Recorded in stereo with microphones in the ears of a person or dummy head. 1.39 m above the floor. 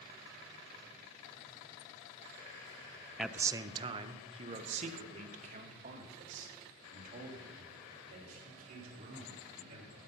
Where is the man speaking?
Centre (ahead or behind), 0.5 m; by 10.0 s 50° right (ahead or behind), 6 m.